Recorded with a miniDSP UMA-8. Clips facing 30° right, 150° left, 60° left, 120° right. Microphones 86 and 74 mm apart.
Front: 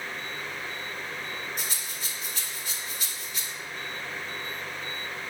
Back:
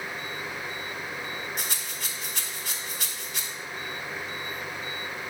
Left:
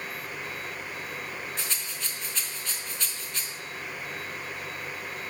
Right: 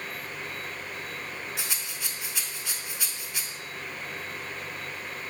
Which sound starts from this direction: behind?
A rattle, at 1.6 s.